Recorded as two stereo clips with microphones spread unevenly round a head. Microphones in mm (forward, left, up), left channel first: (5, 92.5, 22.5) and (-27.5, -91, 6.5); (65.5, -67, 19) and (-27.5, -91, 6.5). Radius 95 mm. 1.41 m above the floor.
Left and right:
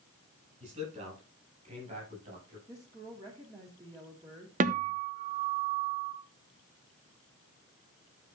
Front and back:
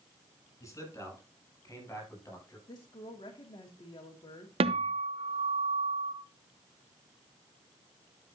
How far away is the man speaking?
About 8.5 m.